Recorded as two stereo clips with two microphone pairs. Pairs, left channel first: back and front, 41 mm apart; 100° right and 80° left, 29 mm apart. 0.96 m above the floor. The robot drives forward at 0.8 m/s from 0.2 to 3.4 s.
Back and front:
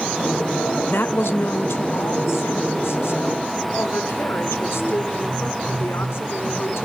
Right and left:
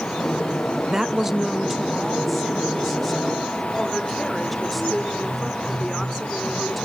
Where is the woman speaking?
150° left, 0.5 m; by 6.8 s 175° left, 2.5 m.